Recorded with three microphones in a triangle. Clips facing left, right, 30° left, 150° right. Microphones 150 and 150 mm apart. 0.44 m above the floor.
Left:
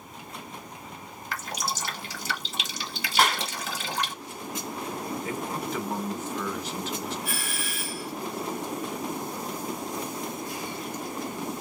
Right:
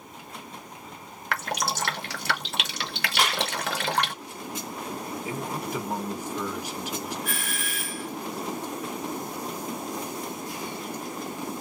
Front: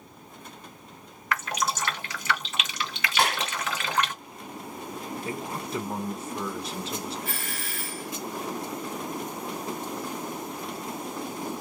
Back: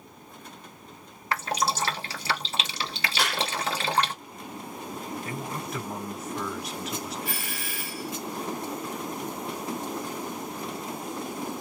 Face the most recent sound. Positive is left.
turn(degrees=160)